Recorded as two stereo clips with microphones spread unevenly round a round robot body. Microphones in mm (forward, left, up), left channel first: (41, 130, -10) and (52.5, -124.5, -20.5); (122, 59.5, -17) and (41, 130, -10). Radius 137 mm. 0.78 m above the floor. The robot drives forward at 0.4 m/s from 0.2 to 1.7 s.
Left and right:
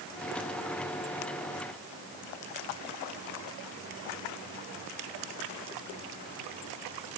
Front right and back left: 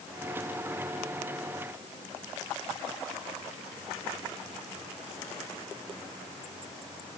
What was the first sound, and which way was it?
Only background noise.